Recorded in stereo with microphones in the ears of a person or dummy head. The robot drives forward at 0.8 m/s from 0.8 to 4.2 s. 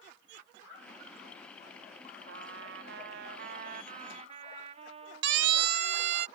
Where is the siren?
75° right (ahead or behind); by 6.3 s 60° right (ahead or behind).